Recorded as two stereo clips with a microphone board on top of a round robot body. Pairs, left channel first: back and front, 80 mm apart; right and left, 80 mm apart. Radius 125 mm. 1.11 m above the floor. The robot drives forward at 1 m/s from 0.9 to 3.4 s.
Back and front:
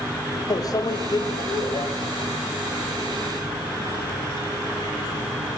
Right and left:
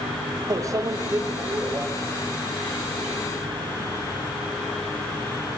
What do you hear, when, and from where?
0.5 s a microwave: 140° left, 1.6 m; by 1.9 s 155° left, 2.5 m